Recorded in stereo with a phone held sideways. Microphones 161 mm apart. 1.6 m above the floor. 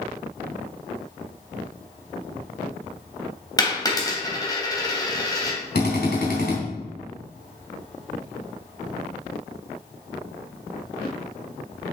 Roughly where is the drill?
Left.